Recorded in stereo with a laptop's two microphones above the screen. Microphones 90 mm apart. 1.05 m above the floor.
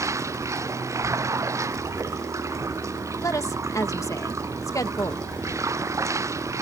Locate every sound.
0.0 s running water: 35° right (ahead or behind)
3.2 s a woman speaking: 35° left (ahead or behind)